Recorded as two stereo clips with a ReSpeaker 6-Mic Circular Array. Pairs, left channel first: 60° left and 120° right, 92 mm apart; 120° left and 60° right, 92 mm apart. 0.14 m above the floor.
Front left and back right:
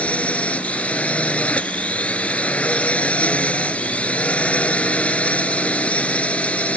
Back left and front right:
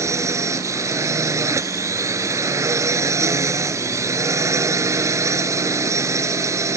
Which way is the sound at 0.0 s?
10° right.